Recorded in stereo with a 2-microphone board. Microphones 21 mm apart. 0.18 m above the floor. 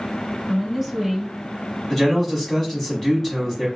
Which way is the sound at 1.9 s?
10° left (ahead or behind).